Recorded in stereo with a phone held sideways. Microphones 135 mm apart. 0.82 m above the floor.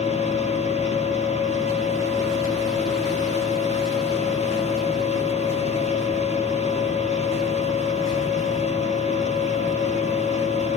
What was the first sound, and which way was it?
A machine running, 60° left (ahead or behind).